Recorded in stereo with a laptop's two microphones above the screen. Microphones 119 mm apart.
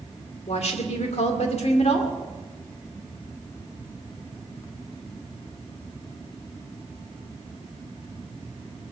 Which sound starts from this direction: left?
A woman speaking, at 0.5 s.